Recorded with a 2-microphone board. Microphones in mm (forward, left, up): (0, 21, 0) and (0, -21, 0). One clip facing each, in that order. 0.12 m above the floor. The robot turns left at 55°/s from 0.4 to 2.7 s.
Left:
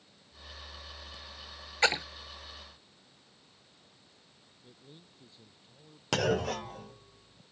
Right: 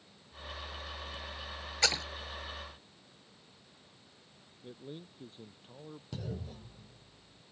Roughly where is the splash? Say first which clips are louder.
Left 5 dB; left.